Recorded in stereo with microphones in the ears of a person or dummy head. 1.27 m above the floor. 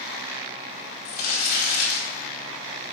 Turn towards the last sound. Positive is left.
turn(degrees=55)  # may be behind; listen again after turning